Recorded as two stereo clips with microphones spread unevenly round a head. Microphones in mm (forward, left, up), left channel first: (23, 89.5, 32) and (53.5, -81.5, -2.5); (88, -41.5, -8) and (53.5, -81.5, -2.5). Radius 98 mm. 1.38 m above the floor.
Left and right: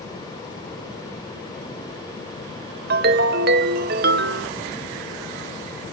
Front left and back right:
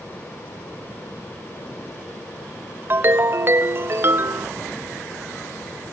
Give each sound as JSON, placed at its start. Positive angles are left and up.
{"t": 2.9, "sound": "a ringtone", "azimuth_deg": -120, "distance_m": 0.7}